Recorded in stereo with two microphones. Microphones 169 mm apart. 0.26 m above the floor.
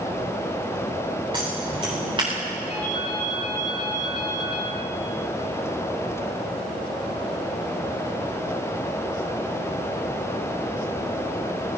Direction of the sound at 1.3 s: 30° right (ahead or behind).